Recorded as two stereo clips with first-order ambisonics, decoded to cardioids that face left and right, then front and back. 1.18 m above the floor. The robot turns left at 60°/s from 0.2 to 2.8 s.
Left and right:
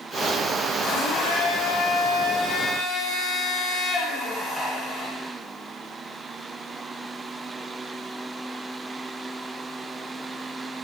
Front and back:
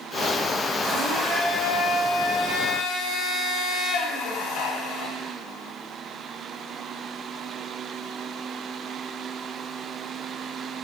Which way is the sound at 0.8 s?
130° left.